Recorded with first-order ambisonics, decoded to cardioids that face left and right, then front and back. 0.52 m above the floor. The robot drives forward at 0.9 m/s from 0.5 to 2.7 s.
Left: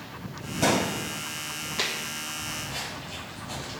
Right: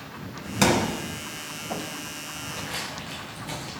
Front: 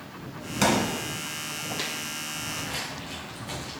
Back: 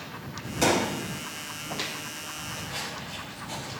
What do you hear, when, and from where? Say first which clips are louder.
0.6 s a thud: right 2 dB, even; 65° right, 1.9 m; by 1.0 s 75° right, 1.8 m
2.3 s footsteps: even, front 1 dB; 35° right, 3 m; by 3.7 s 70° right, 3.5 m